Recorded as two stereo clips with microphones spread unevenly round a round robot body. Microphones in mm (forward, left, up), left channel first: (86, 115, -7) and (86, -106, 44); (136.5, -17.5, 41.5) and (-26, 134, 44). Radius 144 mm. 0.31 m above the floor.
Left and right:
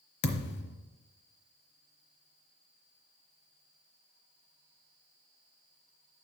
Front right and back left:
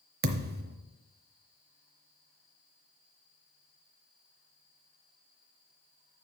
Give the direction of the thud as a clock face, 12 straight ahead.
9 o'clock.